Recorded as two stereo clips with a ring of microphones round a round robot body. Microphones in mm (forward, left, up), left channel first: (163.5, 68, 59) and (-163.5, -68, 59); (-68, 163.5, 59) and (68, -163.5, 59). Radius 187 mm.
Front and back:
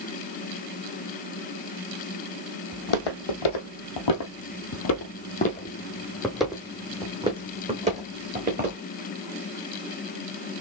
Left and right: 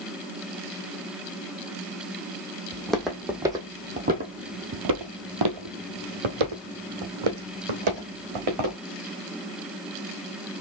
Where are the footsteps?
25° left, 1.5 m; by 8.8 s 90° right, 2.5 m.